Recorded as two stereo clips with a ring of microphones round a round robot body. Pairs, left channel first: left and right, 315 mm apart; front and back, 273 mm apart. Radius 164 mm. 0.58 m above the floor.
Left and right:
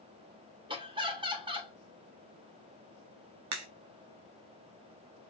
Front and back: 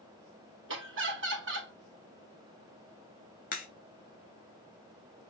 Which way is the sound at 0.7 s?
160° right.